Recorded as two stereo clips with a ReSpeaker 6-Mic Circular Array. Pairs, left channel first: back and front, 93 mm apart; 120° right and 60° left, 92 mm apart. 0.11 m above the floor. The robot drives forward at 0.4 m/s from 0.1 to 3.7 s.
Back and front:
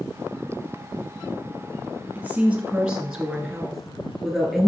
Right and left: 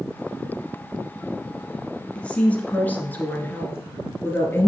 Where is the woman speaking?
55° right, 1.9 m; by 4.7 s 100° right, 1.8 m.